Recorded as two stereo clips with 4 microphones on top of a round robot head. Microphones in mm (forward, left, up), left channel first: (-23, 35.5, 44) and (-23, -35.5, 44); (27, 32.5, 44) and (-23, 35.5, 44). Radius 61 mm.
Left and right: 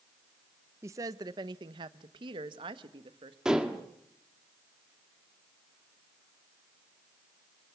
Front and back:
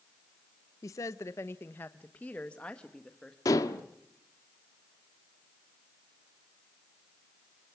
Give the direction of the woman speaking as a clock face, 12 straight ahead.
1 o'clock.